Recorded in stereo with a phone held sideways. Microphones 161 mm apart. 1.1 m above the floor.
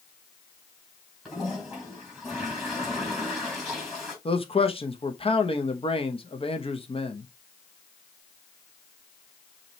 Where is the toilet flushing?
Centre (ahead or behind), 3.5 m.